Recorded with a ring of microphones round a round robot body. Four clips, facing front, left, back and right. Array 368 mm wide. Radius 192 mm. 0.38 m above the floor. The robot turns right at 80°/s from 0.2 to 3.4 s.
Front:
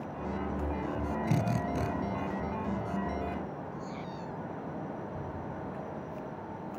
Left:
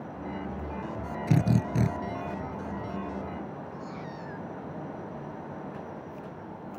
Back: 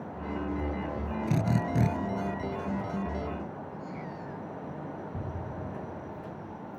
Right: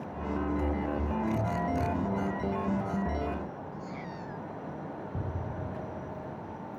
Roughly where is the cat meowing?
Ahead.